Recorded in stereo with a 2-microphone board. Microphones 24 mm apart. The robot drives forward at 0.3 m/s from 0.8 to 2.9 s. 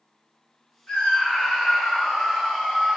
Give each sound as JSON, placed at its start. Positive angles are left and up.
{"t": 0.9, "sound": "a scream", "side_deg": 45, "distance_m": 2.5}